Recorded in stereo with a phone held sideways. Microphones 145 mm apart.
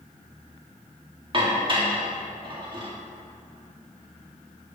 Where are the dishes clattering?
35° right (ahead or behind), 1.7 m.